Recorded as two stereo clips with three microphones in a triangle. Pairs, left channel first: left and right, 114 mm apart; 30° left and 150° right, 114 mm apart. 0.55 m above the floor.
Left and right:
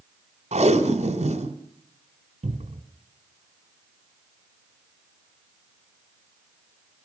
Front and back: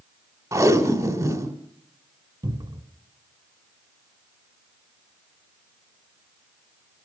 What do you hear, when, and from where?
0.5 s tape being pulled: 90° right, 1.9 m
2.4 s a cupboard door: 100° right, 2 m